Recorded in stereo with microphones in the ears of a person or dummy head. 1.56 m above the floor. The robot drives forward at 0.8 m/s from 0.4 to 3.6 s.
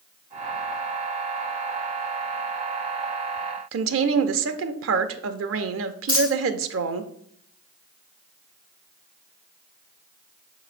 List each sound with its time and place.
3.7 s a woman speaking: 70° right (ahead or behind), 0.5 m
6.1 s a dropped coin: 10° right (ahead or behind), 1.6 m